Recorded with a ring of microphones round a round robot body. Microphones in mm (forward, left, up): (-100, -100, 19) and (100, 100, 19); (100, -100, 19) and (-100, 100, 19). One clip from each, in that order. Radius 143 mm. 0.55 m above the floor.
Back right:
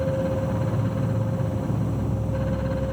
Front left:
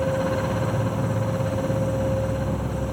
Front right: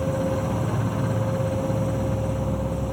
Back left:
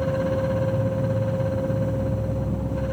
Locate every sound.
0.0 s an insect: 10° right